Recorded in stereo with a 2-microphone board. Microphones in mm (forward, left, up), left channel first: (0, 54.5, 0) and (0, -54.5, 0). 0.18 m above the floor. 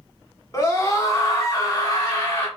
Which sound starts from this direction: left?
A scream, at 0.5 s.